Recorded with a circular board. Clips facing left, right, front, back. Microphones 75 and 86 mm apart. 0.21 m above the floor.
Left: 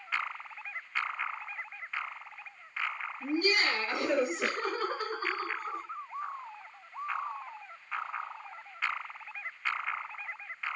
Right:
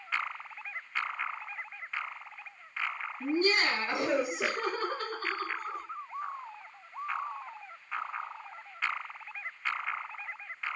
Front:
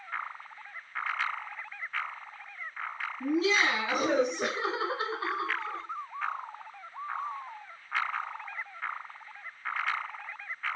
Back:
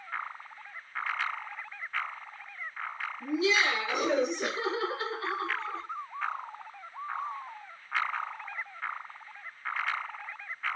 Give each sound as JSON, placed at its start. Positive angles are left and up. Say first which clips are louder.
{"t": 3.2, "sound": "laughter", "louder": "right 1 dB, front 1 dB", "azimuth_deg": -55, "distance_m": 1.8}